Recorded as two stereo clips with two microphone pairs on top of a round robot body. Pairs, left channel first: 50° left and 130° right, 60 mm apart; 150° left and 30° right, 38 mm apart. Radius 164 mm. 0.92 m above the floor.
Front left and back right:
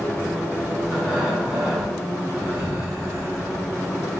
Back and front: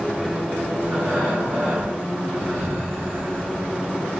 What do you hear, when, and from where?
0.8 s breathing: 45° right, 1.4 m